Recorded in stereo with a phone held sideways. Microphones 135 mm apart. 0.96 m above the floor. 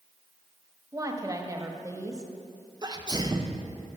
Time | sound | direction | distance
0.9 | a woman speaking | 25° right (ahead or behind) | 1.0 m
2.8 | a sneeze | 30° right (ahead or behind) | 0.8 m